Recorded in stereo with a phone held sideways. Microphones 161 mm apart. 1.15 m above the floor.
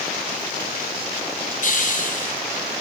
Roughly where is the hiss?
Left.